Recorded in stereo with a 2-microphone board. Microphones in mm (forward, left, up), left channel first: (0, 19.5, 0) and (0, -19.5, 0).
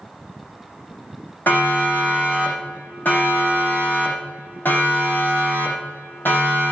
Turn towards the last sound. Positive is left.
turn(degrees=65)  # may be behind; listen again after turning